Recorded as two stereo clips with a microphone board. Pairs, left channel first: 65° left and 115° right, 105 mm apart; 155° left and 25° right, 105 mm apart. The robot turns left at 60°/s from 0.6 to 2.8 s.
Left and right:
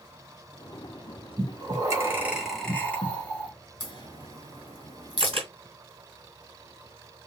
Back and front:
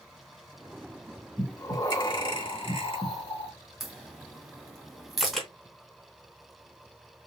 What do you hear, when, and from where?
1.4 s breathing: 130° right, 1.4 m; by 3.5 s 140° left, 1.4 m
3.8 s a crack: 65° left, 1.4 m
5.2 s a camera shutter: 115° right, 1.9 m